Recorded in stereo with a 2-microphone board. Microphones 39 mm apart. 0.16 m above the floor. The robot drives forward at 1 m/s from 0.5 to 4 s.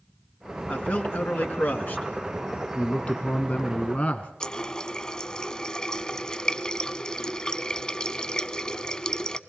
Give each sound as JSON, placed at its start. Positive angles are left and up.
{"t": 0.7, "sound": "a man speaking", "side_deg": 45, "distance_m": 2.0}
{"t": 2.8, "sound": "a man speaking", "side_deg": 30, "distance_m": 1.4}
{"t": 4.4, "sound": "a running tap", "side_deg": 20, "distance_m": 0.8}